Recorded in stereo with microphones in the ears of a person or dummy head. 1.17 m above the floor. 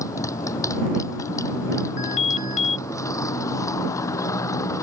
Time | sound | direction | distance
0.0 | a motorcycle | 20° left (ahead or behind) | ?
2.0 | an alarm | 40° left (ahead or behind) | ?